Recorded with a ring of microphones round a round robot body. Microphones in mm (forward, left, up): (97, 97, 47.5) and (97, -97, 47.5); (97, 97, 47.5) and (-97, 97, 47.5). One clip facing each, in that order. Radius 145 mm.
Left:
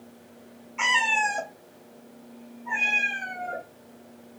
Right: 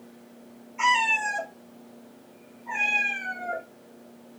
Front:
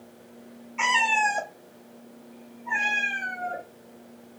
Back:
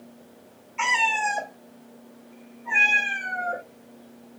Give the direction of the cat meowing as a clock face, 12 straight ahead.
9 o'clock.